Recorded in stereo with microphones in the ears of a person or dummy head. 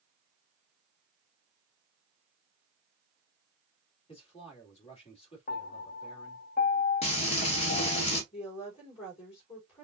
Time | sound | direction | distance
4.1 | a man speaking | 35° left (ahead or behind) | 2 m
5.5 | a piano | 40° left (ahead or behind) | 0.6 m
7.0 | frying | 35° left (ahead or behind) | 1.8 m
8.3 | a woman speaking | 30° left (ahead or behind) | 3.5 m